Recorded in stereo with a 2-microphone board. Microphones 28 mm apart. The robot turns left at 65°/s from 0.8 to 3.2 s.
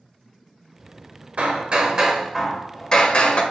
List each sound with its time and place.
1.4 s hammering: 105° right, 0.8 m; by 3.4 s 135° left, 0.8 m